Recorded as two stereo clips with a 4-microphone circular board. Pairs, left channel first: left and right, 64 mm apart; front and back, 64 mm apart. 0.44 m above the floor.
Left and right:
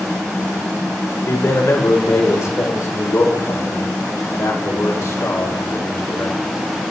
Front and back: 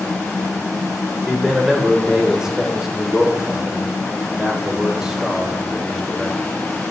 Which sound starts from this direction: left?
A man speaking, at 1.3 s.